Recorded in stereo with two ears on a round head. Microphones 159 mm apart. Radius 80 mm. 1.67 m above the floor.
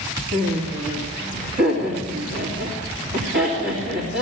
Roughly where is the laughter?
Right.